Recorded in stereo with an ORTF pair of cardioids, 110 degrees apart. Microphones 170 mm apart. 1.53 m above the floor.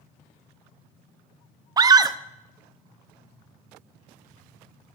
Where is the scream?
20° right, 0.8 m.